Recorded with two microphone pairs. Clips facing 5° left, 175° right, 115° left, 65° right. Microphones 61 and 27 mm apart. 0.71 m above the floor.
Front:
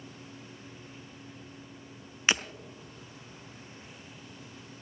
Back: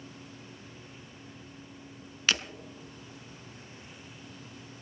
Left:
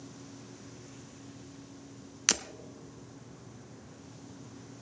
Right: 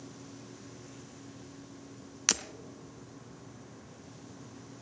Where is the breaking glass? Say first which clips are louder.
Front 2 dB, left 1 dB; 40° left, 0.6 m.